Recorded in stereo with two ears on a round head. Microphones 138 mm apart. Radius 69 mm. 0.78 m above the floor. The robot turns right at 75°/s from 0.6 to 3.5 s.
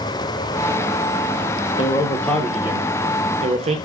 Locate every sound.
1.8 s a man speaking: 130° left, 0.7 m; by 3.8 s 100° right, 0.7 m